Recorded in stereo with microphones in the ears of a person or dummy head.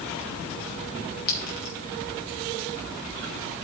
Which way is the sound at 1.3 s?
45° left (ahead or behind).